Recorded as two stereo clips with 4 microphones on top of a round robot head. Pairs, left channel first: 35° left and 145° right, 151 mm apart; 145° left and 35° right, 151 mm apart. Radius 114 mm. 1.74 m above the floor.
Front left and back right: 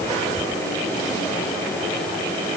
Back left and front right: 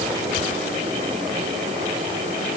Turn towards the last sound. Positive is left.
No sound to turn to.